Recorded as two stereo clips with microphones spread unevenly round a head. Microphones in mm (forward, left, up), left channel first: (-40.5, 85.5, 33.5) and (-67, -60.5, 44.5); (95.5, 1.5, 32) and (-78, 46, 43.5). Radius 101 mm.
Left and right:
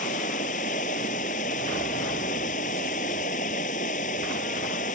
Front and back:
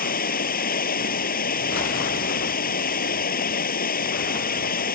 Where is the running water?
25° left.